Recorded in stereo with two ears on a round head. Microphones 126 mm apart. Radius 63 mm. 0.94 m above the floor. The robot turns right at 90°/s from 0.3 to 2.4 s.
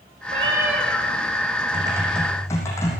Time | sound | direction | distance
0.3 | a cat meowing | 50° right | 3.5 m
1.7 | typing on a keyboard | 40° right | 7 m